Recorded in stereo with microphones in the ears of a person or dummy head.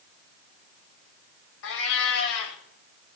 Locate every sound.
1.6 s a cat meowing: 70° left (ahead or behind), 2 m